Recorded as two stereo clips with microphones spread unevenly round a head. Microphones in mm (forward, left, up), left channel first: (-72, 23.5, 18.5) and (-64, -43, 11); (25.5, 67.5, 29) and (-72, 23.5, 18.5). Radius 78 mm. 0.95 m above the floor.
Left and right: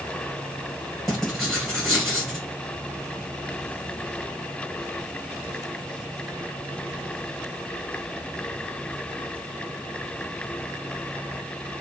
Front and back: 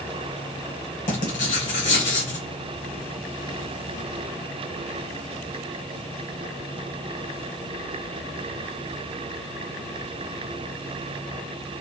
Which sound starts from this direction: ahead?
Writing, at 1.1 s.